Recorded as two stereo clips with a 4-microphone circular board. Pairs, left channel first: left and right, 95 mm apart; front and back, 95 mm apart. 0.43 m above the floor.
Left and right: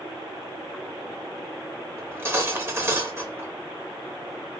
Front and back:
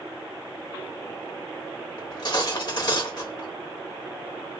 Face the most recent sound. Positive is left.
turn(degrees=-30)